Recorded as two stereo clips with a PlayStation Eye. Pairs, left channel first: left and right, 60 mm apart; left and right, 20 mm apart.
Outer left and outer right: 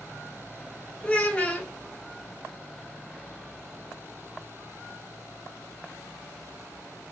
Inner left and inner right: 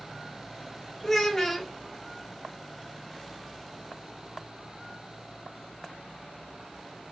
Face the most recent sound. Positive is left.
turn(degrees=25)  # may be behind; listen again after turning